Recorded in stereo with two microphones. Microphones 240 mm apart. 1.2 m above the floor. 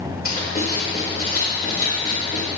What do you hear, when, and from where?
0.2 s writing: 40° left (ahead or behind), 4 m